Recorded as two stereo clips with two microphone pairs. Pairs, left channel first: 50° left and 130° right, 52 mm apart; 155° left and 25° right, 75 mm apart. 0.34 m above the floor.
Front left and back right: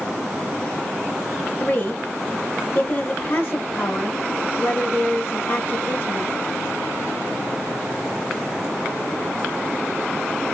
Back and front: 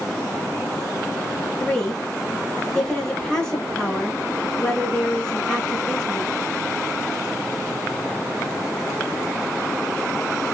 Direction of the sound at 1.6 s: 85° left.